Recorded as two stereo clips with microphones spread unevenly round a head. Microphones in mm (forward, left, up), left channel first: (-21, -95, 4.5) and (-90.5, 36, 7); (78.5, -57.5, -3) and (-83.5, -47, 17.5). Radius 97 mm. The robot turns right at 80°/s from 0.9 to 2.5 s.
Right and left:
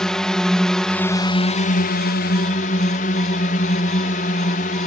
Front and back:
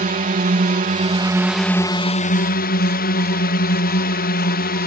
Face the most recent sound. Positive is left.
turn(degrees=-20)